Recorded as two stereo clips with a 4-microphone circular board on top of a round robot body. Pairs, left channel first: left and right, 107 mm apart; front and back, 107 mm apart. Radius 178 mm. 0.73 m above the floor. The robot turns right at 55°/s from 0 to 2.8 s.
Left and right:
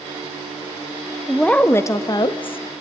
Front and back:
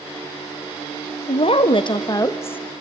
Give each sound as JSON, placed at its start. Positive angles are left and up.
{"t": 1.3, "sound": "a woman speaking", "azimuth_deg": 0, "distance_m": 1.6}